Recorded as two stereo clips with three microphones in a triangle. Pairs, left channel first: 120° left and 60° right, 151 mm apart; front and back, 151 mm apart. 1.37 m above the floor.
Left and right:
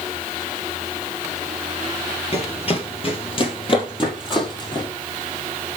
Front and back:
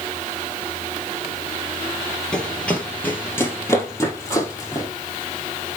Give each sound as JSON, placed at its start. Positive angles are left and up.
{"t": 2.3, "sound": "running footsteps", "azimuth_deg": 85, "distance_m": 2.5}